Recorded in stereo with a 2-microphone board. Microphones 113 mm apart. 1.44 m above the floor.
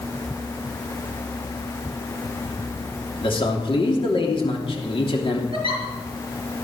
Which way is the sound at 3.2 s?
55° left (ahead or behind).